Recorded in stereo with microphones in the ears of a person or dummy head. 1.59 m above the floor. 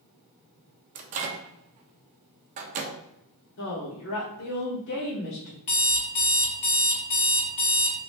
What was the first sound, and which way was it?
A microwave, 40° right (ahead or behind).